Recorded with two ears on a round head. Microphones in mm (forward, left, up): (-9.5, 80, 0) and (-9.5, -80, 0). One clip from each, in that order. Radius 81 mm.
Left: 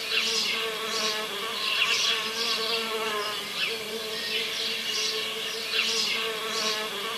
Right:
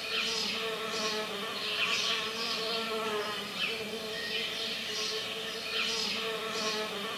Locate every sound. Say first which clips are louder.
0.0 s an insect: left 6 dB; 45° left (ahead or behind), 0.7 m